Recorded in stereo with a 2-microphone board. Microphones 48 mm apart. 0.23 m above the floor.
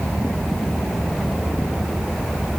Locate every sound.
Only background noise.